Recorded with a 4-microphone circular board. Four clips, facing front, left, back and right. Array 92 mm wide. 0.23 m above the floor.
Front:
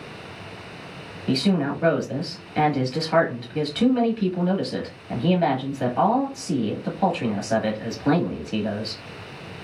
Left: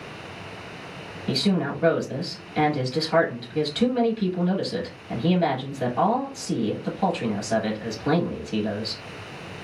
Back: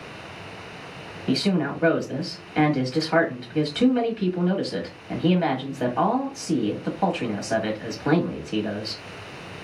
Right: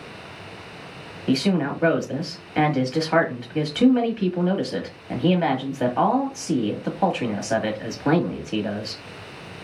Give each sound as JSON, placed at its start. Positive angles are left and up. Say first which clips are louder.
{"t": 1.3, "sound": "a woman speaking", "louder": "right 3 dB, front 1 dB", "azimuth_deg": -100, "distance_m": 1.0}